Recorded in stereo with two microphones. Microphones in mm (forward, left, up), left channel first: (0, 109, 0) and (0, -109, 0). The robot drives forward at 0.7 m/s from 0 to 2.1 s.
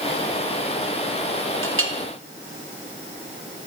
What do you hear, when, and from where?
1.6 s a clink: 75° right (ahead or behind), 0.8 m; by 1.9 s 85° right, 0.7 m